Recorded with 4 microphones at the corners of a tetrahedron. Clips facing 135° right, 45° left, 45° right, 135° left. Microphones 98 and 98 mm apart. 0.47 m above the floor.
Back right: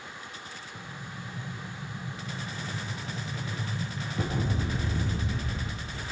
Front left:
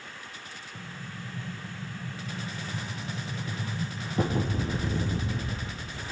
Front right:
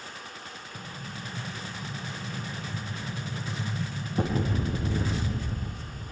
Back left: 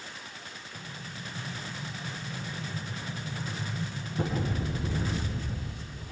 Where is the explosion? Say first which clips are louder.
Front left 2 dB, front right 3 dB; 5° right, 4.5 m.